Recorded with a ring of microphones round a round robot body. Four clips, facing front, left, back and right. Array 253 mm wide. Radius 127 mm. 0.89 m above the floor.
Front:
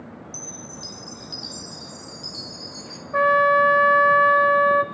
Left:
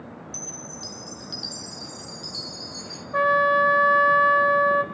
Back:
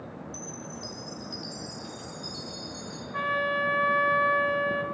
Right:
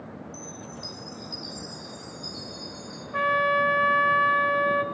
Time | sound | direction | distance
0.3 | a chime | 65° left | 4.5 m
3.1 | a trumpet | 25° left | 1.3 m